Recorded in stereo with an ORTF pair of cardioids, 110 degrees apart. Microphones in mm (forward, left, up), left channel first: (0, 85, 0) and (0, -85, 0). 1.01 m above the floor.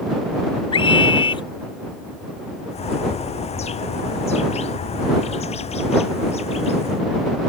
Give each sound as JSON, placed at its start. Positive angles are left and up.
{"t": 0.7, "sound": "a scream", "azimuth_deg": 30}
{"t": 2.7, "sound": "a bird", "azimuth_deg": 40}